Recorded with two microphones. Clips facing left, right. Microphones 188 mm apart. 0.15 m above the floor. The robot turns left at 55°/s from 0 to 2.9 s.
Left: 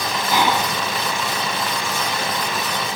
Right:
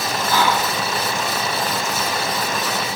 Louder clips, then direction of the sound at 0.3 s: Even; 15° left (ahead or behind).